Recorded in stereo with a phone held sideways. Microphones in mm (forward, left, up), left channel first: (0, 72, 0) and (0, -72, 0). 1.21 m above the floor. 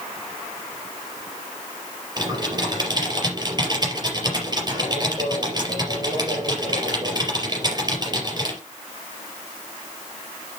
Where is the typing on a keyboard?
30° right (ahead or behind), 4 m.